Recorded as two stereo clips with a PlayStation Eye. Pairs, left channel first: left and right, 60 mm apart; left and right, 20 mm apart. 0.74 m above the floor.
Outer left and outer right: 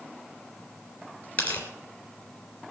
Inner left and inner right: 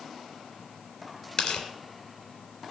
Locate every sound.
1.4 s tearing paper: 25° left (ahead or behind), 3 m